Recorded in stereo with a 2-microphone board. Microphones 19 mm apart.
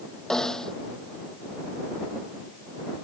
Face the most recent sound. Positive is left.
turn(degrees=30)  # may be behind; listen again after turning